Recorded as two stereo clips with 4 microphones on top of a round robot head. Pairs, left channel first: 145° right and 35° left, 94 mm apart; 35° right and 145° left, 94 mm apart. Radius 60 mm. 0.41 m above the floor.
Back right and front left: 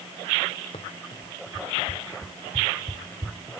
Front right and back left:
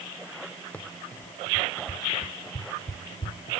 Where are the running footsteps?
110° right; by 3.6 s 55° right.